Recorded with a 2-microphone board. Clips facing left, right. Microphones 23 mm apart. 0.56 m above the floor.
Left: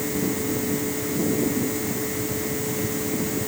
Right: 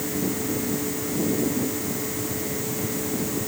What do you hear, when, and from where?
Only background noise.